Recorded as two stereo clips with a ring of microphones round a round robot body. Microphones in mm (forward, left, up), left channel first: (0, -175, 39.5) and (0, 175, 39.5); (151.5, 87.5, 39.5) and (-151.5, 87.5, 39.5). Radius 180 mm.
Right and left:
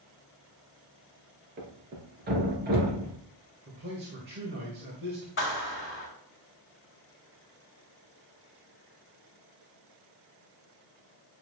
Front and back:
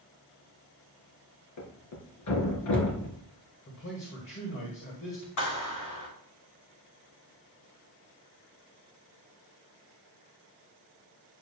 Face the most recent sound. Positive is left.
turn(degrees=-35)